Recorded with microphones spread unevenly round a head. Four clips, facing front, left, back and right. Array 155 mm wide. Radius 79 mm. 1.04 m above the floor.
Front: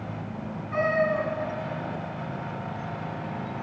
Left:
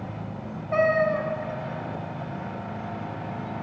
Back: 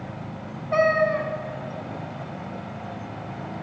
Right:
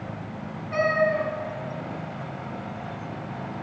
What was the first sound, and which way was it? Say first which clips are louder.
A cat meowing: left 1 dB, back 4 dB; 145° left.